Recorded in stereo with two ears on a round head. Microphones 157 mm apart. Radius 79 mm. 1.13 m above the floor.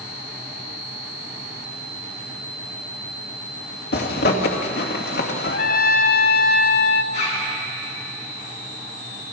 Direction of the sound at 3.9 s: 60° left (ahead or behind).